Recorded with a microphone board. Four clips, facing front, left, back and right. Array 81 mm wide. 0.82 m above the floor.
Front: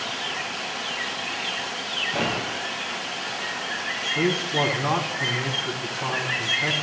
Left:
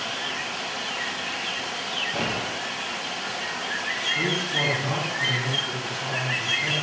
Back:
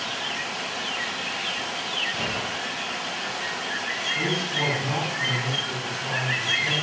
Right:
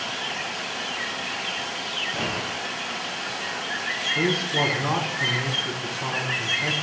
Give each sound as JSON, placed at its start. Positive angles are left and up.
{"t": 2.1, "sound": "a gunshot", "azimuth_deg": 20, "distance_m": 3.5}
{"t": 4.2, "sound": "a man speaking", "azimuth_deg": -25, "distance_m": 7.0}